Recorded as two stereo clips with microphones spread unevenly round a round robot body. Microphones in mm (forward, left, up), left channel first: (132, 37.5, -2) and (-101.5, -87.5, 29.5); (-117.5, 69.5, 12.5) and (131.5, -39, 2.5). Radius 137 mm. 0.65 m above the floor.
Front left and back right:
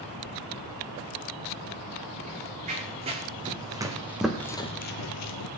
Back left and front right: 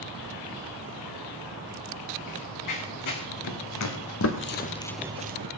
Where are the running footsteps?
145° left, 4 m; by 5.5 s 15° left, 1.1 m.